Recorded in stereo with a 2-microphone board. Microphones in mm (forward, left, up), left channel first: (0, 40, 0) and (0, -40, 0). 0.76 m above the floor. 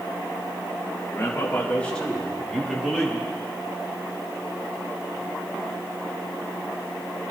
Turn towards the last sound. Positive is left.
turn(degrees=-10)  # may be behind; listen again after turning